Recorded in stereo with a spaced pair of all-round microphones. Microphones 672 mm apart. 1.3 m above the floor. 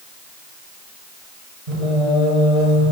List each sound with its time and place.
1.7 s singing: 75° right (ahead or behind), 6 m